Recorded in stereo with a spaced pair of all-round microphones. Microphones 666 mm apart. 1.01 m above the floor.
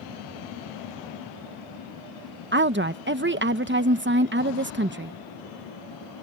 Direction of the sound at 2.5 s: 15° right (ahead or behind).